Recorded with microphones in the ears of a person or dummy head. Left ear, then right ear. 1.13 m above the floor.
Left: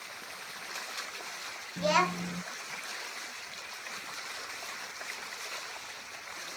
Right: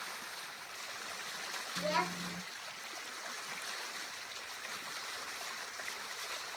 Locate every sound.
1.8 s a child speaking: 20° left (ahead or behind), 0.5 m